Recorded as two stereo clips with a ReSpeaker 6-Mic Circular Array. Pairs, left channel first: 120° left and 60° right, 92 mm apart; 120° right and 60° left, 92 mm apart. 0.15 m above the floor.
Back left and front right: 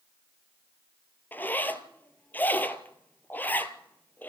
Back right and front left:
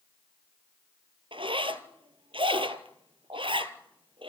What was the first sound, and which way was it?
A zipper, 50° left.